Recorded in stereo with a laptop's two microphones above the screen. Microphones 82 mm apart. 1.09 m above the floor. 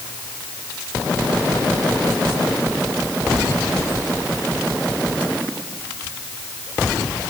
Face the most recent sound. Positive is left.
No sound to turn to.